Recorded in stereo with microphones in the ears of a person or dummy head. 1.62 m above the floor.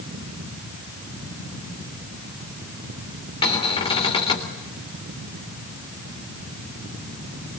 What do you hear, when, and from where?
3.4 s a cupboard door: 30° left (ahead or behind), 3.5 m